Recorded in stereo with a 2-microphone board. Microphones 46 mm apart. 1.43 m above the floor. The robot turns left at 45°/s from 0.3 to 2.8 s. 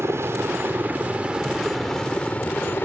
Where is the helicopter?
70° right (ahead or behind); by 2.9 s 50° left (ahead or behind).